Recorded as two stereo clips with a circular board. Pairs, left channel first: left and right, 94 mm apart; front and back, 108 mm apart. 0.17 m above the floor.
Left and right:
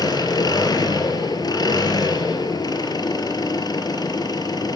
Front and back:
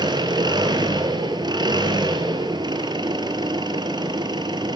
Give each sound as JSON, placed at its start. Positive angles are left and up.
{"t": 0.0, "sound": "an engine running", "azimuth_deg": 130, "distance_m": 2.5}